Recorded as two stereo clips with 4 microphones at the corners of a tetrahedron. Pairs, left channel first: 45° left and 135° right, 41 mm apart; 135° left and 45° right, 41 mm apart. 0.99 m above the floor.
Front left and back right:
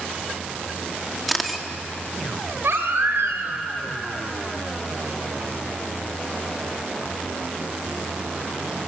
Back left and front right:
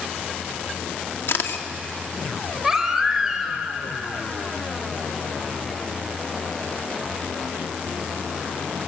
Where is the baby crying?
125° right, 3 m.